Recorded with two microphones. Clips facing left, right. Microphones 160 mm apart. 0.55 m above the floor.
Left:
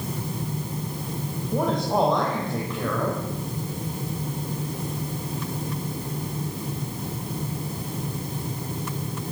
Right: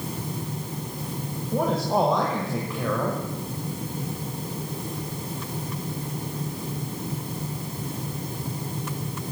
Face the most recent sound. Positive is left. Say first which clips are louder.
# even
turn(degrees=-5)  # may be behind; listen again after turning